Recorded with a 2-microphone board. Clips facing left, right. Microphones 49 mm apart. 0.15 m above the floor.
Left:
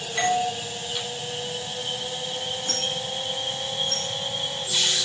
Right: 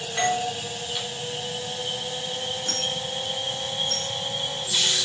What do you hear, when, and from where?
0.2 s a doorbell: 25° right (ahead or behind), 2.0 m
2.7 s a dropped coin: 70° right (ahead or behind), 3 m